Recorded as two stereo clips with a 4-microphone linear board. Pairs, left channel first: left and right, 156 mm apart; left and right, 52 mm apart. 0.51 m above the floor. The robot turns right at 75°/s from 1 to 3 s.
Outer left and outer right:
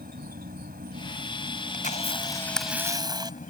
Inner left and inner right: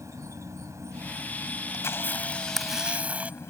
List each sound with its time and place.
0.0 s an insect: 85° right; by 3.5 s 65° left
1.7 s a camera shutter: 115° left; by 3.5 s 155° right